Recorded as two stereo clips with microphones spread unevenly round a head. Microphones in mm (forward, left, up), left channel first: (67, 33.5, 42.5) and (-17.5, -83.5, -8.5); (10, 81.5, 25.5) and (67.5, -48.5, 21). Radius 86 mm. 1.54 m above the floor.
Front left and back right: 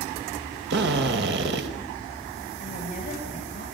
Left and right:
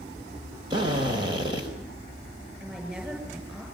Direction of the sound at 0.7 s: 130° right.